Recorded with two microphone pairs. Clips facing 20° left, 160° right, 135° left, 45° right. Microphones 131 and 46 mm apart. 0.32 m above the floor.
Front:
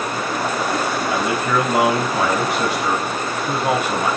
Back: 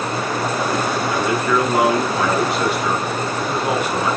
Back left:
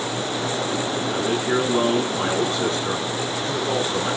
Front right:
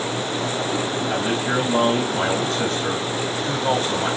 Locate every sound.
1.1 s a man speaking: 35° right, 8.5 m